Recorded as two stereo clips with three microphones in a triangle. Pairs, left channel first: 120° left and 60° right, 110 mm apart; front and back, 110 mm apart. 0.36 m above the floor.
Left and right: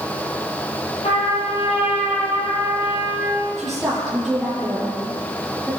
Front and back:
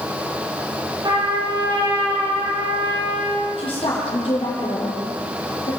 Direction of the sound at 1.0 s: 130° left.